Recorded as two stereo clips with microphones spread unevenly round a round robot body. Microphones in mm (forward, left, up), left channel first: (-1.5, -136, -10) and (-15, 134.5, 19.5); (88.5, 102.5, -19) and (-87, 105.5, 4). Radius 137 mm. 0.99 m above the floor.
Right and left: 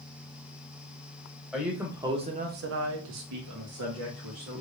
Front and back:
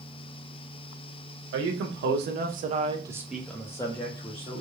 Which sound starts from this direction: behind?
A man speaking, at 1.5 s.